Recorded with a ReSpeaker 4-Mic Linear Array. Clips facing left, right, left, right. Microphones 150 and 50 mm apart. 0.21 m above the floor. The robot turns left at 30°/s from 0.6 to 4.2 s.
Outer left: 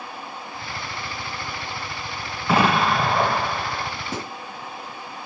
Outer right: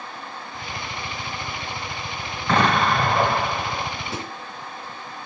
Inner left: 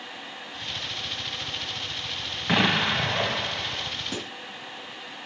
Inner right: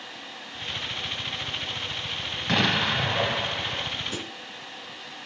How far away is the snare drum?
About 2.5 m.